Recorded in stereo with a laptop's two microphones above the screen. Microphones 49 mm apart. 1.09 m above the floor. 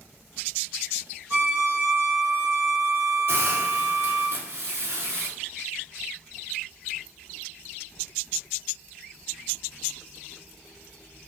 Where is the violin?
55° right (ahead or behind), 1.3 m.